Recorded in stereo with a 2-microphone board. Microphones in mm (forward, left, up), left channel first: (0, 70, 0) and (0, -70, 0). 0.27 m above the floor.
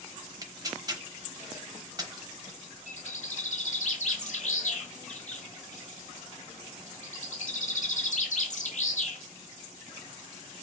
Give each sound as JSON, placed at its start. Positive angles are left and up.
{"t": 0.4, "sound": "tearing paper", "side_deg": -30, "distance_m": 0.7}
{"t": 2.9, "sound": "a bird", "side_deg": 60, "distance_m": 1.4}